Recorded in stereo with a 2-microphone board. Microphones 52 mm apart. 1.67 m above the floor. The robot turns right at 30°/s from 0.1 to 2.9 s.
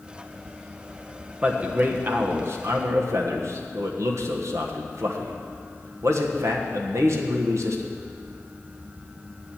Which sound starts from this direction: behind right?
A man speaking, at 1.4 s.